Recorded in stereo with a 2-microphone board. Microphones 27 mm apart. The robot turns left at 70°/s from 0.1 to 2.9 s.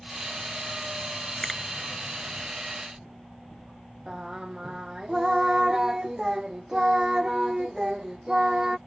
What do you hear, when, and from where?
1.4 s a finger snap: 15° left (ahead or behind)
4.1 s singing: 20° right (ahead or behind)